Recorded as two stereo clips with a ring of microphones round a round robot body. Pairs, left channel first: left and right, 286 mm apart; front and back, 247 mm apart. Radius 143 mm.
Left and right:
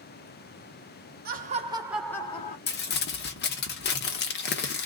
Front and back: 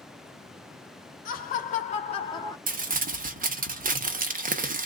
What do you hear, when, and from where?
1.2 s laughter: 45° right, 1.2 m; by 2.6 s 60° left, 1.0 m
2.7 s crumpling: 135° left, 1.1 m